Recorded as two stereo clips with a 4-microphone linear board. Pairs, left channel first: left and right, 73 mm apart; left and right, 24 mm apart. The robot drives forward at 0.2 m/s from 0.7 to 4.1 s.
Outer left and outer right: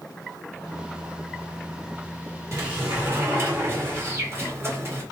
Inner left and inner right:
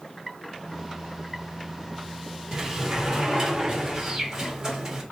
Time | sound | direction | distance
2.5 | a sliding door | 40° right (ahead or behind) | 1.9 m